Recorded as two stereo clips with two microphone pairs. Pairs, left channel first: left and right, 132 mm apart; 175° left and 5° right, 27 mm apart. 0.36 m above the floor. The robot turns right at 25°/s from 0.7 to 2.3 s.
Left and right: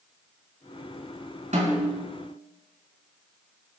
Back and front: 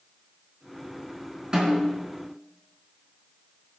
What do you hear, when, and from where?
1.5 s a snare drum: 65° right, 5 m; by 2.1 s 50° right, 5 m